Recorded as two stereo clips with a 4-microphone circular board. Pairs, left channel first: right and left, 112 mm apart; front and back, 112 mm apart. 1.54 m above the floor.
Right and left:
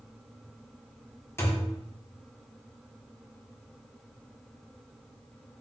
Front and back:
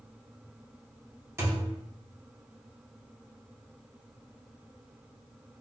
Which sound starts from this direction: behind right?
A thud, at 1.4 s.